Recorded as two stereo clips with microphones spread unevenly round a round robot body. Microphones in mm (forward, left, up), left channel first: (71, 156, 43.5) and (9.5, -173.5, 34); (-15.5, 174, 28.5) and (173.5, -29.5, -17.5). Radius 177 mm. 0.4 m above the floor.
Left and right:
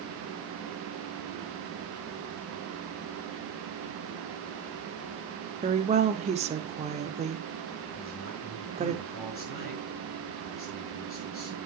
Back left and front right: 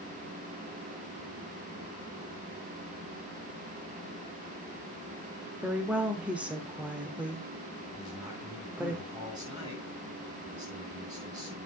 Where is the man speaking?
25° left, 7 m.